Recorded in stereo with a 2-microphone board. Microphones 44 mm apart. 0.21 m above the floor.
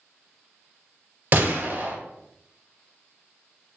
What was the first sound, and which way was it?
A gunshot, 50° right (ahead or behind).